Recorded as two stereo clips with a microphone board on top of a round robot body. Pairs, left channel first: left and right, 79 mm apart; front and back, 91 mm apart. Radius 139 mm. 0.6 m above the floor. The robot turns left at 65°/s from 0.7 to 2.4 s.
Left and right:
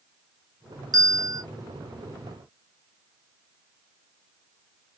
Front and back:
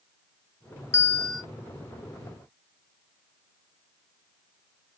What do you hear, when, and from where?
0.9 s a bell: 60° right, 0.9 m; by 1.4 s 95° right, 0.9 m